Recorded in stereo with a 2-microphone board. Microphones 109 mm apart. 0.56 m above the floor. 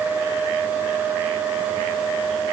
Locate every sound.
Only background noise.